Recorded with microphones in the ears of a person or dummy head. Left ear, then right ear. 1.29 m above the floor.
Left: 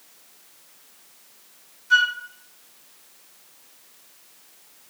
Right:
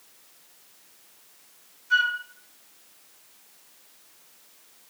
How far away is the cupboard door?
No cupboard door in this recording.